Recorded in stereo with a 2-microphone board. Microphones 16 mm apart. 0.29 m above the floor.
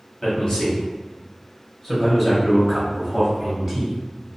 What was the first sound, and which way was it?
A man speaking, 45° left (ahead or behind).